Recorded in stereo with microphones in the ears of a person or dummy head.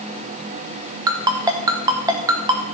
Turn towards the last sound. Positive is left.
turn(degrees=-15)  # may be behind; listen again after turning